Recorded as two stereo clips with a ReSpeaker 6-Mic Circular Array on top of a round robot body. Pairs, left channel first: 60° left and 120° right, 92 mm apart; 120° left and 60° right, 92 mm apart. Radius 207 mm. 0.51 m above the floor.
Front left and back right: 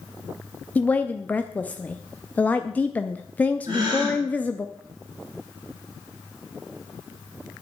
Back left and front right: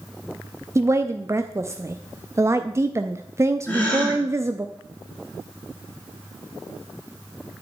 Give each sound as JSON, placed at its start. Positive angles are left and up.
{"t": 0.8, "sound": "a woman speaking", "azimuth_deg": -10, "distance_m": 0.8}
{"t": 3.7, "sound": "a gasp", "azimuth_deg": -165, "distance_m": 6.5}